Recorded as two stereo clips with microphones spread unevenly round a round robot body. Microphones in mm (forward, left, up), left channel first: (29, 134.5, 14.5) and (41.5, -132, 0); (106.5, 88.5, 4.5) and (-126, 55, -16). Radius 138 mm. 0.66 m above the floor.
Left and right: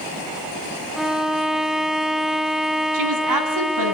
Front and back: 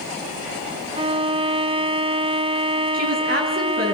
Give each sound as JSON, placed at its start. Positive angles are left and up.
{"t": 1.0, "sound": "a violin", "azimuth_deg": -165, "distance_m": 0.8}
{"t": 2.9, "sound": "a woman speaking", "azimuth_deg": -110, "distance_m": 6.0}